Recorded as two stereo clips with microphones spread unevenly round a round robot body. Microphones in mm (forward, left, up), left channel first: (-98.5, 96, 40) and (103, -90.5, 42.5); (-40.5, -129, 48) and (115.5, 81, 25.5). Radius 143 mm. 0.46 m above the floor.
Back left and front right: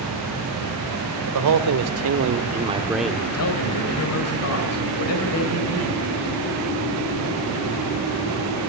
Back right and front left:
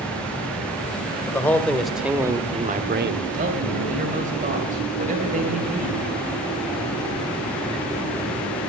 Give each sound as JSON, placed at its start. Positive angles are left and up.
{"t": 1.3, "sound": "a man speaking", "azimuth_deg": -45, "distance_m": 1.6}
{"t": 3.3, "sound": "a man speaking", "azimuth_deg": 110, "distance_m": 3.0}